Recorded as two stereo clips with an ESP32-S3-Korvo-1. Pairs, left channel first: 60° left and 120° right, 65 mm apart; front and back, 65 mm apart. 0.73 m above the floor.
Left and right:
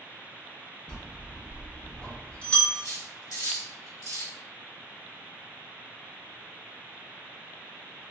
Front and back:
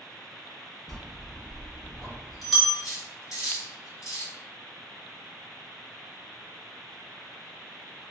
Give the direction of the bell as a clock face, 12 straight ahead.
9 o'clock.